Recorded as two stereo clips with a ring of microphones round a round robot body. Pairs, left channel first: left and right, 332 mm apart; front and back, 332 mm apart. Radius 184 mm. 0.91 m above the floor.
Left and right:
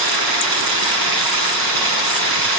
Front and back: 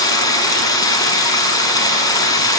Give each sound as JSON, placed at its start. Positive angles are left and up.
{"t": 0.0, "sound": "running water", "azimuth_deg": -80, "distance_m": 7.0}